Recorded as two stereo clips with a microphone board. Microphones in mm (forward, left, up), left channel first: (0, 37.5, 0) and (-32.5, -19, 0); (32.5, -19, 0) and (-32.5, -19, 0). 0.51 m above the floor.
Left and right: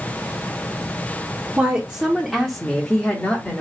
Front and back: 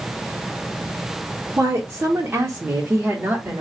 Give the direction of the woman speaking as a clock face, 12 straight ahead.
6 o'clock.